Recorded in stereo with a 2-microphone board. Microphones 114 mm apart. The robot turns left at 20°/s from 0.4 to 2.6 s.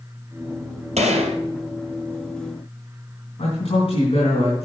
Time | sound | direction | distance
1.0 | a gunshot | 75° right (ahead or behind) | 2.5 m
3.4 | a man speaking | 55° left (ahead or behind) | 4 m